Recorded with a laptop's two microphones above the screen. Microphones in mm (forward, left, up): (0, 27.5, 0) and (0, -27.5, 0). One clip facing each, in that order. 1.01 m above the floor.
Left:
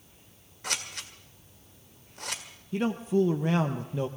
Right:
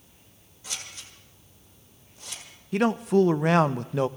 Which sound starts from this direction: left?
Scissors, at 0.6 s.